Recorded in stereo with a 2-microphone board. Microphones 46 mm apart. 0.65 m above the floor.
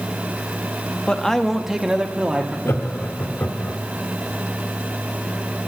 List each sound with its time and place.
1.1 s a man speaking: 20° left (ahead or behind), 0.6 m; by 2.5 s 30° right (ahead or behind), 1.0 m
2.6 s laughter: 65° left (ahead or behind), 1.4 m